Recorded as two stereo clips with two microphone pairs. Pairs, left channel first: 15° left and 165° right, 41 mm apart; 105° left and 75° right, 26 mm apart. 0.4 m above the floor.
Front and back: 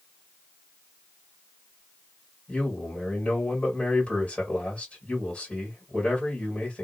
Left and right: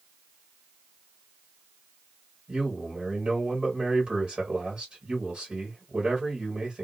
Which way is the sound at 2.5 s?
45° right.